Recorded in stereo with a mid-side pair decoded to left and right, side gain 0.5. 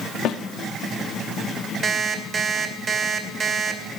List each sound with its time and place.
0.2 s a snare drum: 70° left, 0.7 m
1.8 s an alarm clock: 50° right, 2.5 m